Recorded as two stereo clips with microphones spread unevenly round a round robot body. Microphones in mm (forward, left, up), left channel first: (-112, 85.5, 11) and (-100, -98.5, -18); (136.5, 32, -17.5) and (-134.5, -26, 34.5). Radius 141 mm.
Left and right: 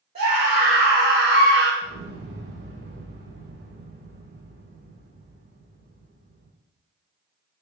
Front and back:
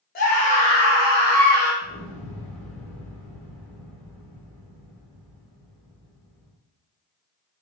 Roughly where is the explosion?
Right.